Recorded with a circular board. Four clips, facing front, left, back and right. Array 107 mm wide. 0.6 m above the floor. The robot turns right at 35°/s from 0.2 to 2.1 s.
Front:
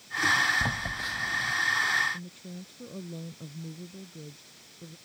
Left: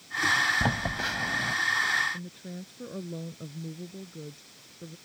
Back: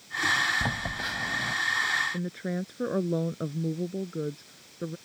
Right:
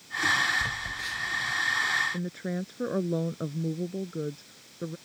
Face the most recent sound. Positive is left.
turn(degrees=-145)